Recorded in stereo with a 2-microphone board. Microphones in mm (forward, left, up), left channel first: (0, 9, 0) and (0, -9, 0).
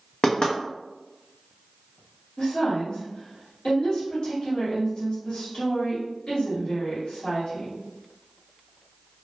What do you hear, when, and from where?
0.2 s knocking: 45° left (ahead or behind), 0.6 m
2.4 s a woman speaking: 50° left (ahead or behind), 1.2 m